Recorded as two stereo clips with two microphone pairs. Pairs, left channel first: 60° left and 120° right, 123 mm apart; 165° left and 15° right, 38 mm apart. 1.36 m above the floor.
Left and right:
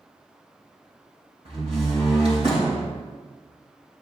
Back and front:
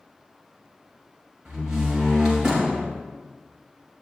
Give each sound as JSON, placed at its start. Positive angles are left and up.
{"t": 1.4, "sound": "a door slam", "azimuth_deg": -85, "distance_m": 4.0}